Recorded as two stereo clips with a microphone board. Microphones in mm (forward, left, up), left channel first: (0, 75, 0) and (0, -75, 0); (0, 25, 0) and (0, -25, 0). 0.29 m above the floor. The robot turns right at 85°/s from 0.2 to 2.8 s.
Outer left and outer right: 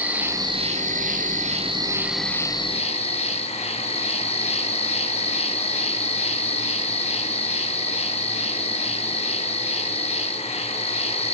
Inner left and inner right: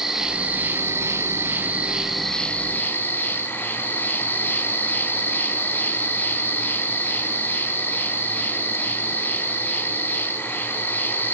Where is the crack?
I don't hear a crack.